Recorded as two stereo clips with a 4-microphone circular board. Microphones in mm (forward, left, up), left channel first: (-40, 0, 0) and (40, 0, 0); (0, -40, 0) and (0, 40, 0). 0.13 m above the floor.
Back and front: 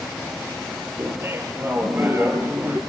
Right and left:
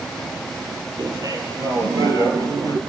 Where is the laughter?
55° left, 3.5 m.